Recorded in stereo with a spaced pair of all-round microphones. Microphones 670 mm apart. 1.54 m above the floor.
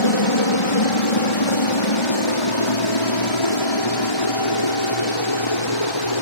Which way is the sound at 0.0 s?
45° left (ahead or behind).